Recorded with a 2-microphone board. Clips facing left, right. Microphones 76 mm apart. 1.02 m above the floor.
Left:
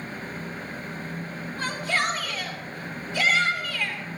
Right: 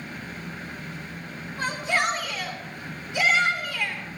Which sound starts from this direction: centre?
A shout, at 1.6 s.